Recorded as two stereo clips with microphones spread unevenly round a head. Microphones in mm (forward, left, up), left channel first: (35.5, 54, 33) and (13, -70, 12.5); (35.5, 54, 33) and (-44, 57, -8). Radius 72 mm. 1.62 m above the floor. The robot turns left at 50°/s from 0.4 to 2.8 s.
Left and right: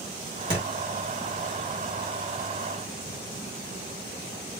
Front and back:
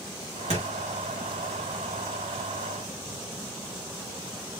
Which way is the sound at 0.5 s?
160° right.